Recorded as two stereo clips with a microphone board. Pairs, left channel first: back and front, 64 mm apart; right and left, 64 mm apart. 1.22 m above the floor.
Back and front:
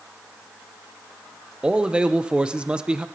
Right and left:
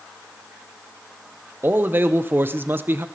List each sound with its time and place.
1.6 s a man speaking: 65° left, 0.6 m